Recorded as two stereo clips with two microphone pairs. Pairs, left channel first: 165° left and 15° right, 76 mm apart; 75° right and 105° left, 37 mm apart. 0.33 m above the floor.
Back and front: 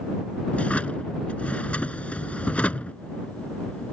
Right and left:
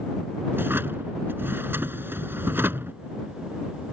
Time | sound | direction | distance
0.5 | a drawer | 90° left | ?